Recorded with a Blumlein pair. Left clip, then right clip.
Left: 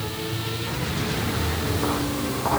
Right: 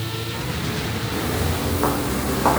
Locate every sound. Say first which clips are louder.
1.1 s footsteps: right 2 dB; 20° right, 5.5 m